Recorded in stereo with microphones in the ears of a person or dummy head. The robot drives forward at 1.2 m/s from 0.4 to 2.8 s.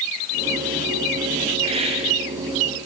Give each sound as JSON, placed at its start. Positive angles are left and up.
{"t": 1.6, "sound": "a hiss", "side_deg": -30, "distance_m": 3.0}